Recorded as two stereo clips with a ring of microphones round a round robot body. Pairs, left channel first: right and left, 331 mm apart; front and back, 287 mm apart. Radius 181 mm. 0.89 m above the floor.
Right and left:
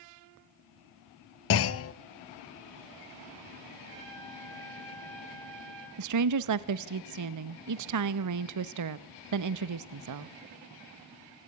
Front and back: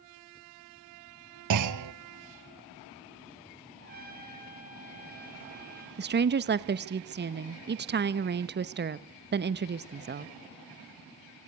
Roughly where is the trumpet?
Behind left.